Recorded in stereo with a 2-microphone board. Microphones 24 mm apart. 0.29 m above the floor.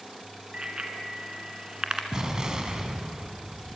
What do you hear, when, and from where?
0.5 s a bicycle bell: 35° right (ahead or behind), 2.5 m
2.1 s an explosion: 30° right (ahead or behind), 2 m